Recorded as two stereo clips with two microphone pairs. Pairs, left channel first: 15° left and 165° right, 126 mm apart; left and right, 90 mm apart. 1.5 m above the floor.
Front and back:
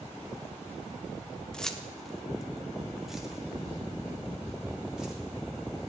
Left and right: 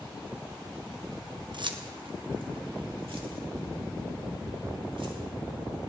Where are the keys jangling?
65° right, 0.9 m; by 5.9 s 80° right, 3.5 m.